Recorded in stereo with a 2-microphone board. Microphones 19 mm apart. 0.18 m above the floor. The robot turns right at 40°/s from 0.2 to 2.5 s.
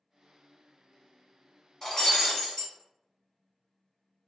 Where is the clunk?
I don't hear a clunk.